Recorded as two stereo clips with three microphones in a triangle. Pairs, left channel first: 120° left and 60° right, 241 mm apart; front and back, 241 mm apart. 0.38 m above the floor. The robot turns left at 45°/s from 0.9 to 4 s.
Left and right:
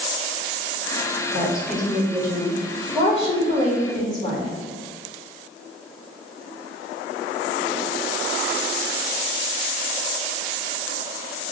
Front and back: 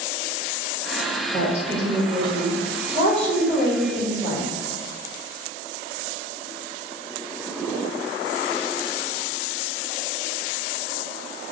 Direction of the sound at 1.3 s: 135° right.